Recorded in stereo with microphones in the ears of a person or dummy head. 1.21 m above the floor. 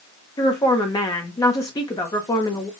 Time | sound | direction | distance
0.4 | a woman speaking | 15° left (ahead or behind) | 0.6 m